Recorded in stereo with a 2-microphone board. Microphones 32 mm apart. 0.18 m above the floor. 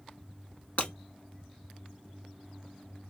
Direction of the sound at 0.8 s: 50° left (ahead or behind).